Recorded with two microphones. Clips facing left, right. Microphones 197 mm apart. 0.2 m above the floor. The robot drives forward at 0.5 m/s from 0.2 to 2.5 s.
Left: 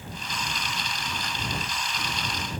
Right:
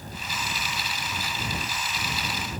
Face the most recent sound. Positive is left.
No sound to turn to.